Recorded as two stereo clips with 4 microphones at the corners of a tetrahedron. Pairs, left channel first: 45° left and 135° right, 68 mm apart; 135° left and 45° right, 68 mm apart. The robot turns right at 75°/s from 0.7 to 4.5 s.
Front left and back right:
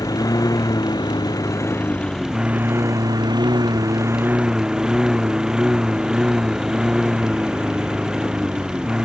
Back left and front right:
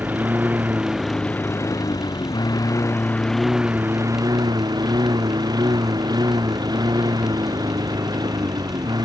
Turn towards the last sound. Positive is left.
turn(degrees=-55)